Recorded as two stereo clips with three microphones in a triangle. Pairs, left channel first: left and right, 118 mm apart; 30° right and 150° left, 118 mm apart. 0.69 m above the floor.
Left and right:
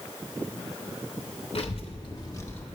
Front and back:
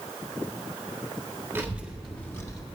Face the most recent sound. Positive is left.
turn(degrees=20)